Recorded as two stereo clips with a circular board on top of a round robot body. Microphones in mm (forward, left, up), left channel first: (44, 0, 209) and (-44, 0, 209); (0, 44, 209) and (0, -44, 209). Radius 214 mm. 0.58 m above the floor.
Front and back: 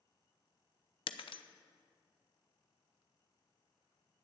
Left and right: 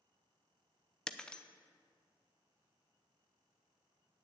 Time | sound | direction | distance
1.1 | breaking glass | 10° left | 0.7 m